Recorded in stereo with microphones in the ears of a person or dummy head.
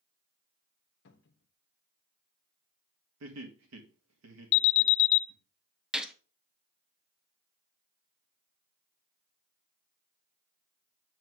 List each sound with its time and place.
1.1 s a cupboard door: 65° left (ahead or behind), 1.0 m
3.2 s laughter: 80° right, 1.8 m
4.5 s an alarm: 60° left (ahead or behind), 0.5 m
5.9 s a gunshot: centre (ahead or behind), 0.7 m